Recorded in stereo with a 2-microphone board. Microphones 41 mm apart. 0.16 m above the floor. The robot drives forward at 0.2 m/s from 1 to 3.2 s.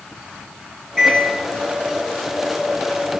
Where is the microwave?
5° right (ahead or behind), 1.3 m.